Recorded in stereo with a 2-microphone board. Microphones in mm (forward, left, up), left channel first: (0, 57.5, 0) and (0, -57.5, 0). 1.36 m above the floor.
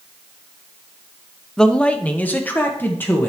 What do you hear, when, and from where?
1.6 s a man speaking: 5° left (ahead or behind), 0.7 m; by 3.3 s 20° left (ahead or behind), 1.9 m